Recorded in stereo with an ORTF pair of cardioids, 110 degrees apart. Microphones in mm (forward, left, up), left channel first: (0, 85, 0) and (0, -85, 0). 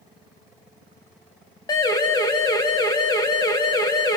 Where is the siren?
25° left, 8 m.